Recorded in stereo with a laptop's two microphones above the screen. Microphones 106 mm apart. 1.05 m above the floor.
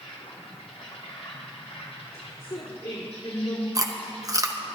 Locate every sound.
0.0 s an insect: 75° left (ahead or behind), 4 m
2.1 s a woman speaking: 55° left (ahead or behind), 3 m
3.8 s chewing: 30° right (ahead or behind), 0.9 m